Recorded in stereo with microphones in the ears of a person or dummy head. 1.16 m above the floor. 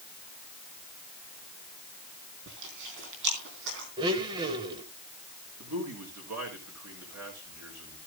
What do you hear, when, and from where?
2.5 s chewing: 65° right (ahead or behind), 3.5 m
4.0 s a blender: 25° right (ahead or behind), 1.0 m
5.6 s a man speaking: 75° right (ahead or behind), 4.5 m